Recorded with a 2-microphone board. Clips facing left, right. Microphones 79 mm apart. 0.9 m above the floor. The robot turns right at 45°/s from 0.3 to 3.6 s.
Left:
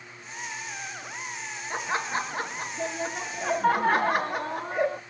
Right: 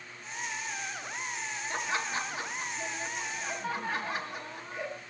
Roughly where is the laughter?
Ahead.